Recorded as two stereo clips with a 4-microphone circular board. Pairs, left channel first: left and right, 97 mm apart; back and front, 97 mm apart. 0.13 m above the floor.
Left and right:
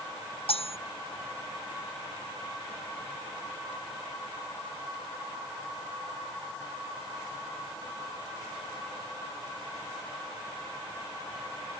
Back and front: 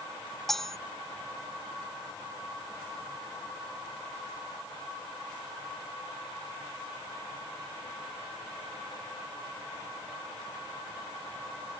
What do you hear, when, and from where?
0.5 s cutlery clinking: 95° left